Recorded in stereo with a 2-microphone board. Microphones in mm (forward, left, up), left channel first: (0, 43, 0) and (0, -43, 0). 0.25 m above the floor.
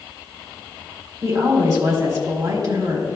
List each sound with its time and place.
1.2 s a woman speaking: 50° right (ahead or behind), 1.8 m